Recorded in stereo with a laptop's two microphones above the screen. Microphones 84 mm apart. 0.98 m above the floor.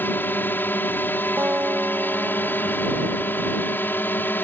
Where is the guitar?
25° right (ahead or behind).